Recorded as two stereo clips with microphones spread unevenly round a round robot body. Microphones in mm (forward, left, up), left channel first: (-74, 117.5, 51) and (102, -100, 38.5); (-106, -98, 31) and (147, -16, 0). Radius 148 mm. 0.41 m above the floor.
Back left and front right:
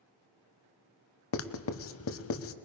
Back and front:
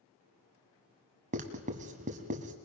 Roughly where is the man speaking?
I don't hear a man speaking.